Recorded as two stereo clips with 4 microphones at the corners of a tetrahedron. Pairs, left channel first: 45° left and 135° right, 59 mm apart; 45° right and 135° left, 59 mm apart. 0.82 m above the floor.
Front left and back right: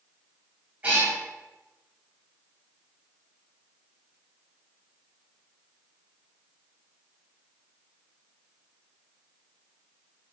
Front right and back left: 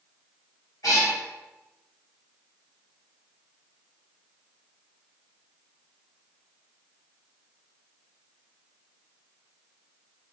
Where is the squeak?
No squeak in this recording.